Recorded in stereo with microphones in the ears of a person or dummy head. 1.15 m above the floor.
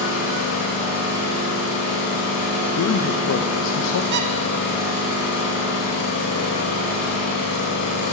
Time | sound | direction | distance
0.0 | an engine running | 55° left (ahead or behind) | 5 m
2.8 | a man speaking | 75° left (ahead or behind) | 0.6 m
4.1 | a squeak | 60° right (ahead or behind) | 0.8 m